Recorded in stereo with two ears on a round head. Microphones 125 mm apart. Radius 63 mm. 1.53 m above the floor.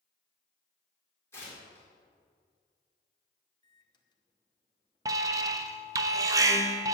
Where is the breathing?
I don't hear breathing.